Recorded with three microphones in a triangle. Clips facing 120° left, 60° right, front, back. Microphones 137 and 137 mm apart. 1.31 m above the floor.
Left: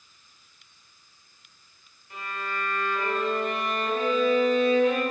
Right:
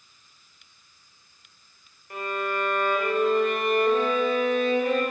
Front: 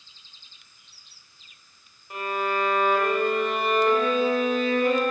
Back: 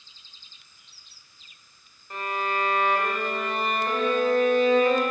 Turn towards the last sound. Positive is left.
turn(degrees=-85)